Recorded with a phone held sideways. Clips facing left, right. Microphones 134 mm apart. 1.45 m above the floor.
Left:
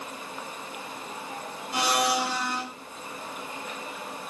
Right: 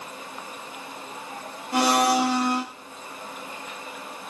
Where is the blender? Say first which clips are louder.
Right 5 dB; 70° right (ahead or behind), 2 m.